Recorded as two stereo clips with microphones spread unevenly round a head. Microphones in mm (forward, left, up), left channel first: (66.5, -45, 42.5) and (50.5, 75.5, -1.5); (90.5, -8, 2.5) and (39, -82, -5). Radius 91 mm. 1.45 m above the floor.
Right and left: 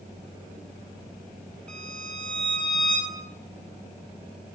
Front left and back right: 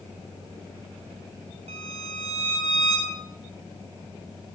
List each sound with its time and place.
1.7 s a violin: 160° right, 3.5 m